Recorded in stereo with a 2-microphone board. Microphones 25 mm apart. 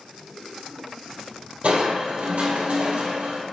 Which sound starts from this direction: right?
Crushing, at 1.6 s.